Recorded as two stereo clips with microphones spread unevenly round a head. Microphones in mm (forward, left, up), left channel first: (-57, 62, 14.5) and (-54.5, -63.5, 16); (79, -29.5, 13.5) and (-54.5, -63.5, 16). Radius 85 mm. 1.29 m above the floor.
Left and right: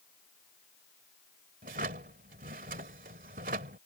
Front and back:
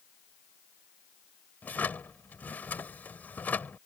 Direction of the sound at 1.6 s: 65° right.